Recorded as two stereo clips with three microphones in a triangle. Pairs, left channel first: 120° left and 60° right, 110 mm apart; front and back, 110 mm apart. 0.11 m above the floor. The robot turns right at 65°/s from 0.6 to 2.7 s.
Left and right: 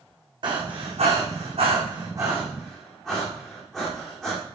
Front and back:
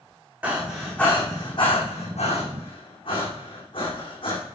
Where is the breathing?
100° right, 4 m; by 4.4 s 35° left, 4 m.